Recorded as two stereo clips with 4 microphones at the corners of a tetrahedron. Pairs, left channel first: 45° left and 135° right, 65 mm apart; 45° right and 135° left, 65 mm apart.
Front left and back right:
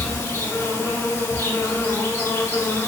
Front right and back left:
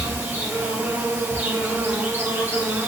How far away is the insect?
About 1.7 m.